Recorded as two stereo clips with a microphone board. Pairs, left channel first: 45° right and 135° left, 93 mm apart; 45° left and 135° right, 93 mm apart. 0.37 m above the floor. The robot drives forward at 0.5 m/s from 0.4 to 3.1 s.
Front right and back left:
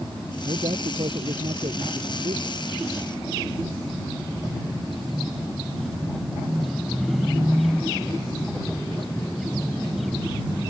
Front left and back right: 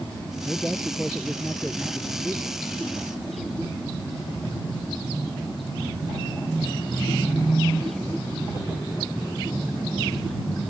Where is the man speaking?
145° left.